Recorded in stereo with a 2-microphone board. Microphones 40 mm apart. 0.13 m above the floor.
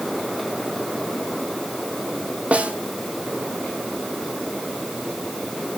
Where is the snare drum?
30° right (ahead or behind), 1.3 m.